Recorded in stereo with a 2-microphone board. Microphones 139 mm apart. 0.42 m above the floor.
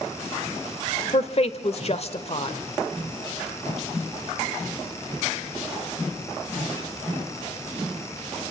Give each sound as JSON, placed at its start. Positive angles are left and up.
{"t": 1.1, "sound": "a woman speaking", "side_deg": 50, "distance_m": 1.2}